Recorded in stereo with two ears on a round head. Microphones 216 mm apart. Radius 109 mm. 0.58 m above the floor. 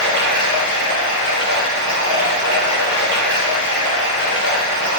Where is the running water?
50° right (ahead or behind), 1.0 m.